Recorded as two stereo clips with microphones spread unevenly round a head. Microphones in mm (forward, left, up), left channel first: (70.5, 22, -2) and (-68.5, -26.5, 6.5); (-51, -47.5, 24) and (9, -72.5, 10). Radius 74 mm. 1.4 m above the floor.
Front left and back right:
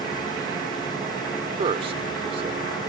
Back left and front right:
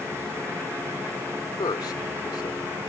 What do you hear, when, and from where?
1.6 s a man speaking: 145° left